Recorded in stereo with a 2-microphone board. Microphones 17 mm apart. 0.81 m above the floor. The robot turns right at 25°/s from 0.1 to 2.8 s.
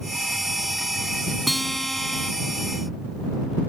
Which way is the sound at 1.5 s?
Centre (ahead or behind).